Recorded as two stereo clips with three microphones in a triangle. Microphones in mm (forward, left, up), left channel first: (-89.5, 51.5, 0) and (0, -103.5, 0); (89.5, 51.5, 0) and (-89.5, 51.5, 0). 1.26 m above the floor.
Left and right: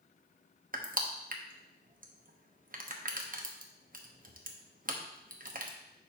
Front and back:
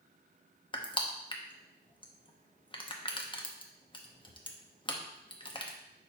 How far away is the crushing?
About 0.8 m.